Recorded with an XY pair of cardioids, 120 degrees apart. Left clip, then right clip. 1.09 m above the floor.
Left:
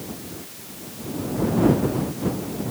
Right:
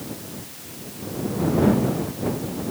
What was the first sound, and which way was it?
Only background noise.